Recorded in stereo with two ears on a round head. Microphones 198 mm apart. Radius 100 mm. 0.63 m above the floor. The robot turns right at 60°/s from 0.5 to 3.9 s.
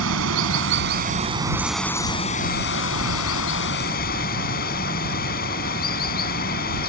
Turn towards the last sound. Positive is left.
turn(degrees=130)